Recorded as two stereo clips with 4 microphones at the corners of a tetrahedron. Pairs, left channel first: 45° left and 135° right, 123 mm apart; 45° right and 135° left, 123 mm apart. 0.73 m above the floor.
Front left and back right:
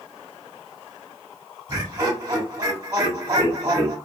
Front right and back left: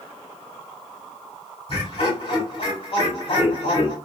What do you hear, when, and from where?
1.7 s laughter: 75° right, 1.5 m